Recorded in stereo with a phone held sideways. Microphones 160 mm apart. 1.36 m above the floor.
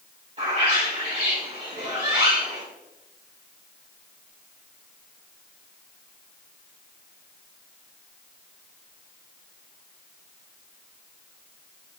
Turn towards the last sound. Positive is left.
turn(degrees=-40)  # may be behind; listen again after turning